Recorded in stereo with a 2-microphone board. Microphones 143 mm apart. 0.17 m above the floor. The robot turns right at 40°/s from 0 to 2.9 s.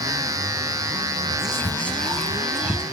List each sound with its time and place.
1.3 s whispering: 140° left, 1.3 m; by 2.8 s 160° right, 1.3 m